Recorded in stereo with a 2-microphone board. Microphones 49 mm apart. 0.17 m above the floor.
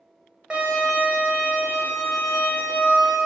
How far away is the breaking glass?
No breaking glass in this recording.